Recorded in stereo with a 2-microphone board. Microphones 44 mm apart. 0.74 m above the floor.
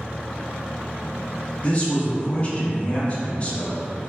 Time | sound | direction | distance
1.6 | a man speaking | 30° left (ahead or behind) | 0.7 m